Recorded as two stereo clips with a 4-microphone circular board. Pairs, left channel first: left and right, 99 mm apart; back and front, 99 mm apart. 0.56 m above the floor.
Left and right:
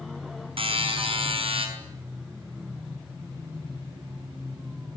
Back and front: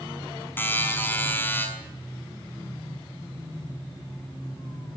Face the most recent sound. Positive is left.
turn(degrees=-110)